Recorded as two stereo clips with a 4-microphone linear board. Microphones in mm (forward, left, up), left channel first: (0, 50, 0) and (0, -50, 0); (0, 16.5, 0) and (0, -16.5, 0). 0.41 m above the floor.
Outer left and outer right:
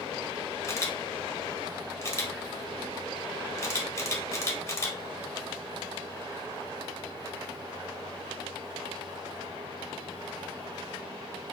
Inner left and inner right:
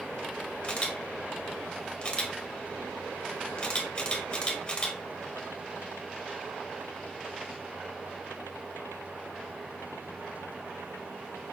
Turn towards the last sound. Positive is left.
turn(degrees=30)  # may be behind; listen again after turning